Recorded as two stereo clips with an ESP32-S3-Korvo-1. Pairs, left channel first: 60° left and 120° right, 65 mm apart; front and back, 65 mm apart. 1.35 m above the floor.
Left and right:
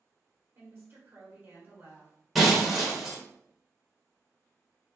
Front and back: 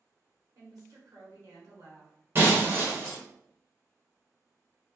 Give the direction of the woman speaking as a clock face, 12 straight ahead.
6 o'clock.